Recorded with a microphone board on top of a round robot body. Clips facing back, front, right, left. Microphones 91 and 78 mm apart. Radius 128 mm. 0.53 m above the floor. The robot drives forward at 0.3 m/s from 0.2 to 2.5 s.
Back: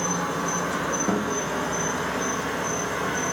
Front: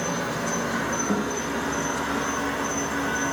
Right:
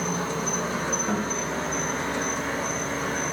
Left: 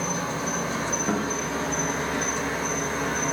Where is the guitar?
175° left, 0.7 m.